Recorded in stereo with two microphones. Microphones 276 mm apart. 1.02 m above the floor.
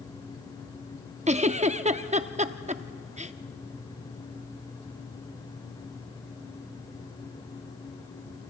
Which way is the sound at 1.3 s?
25° right (ahead or behind).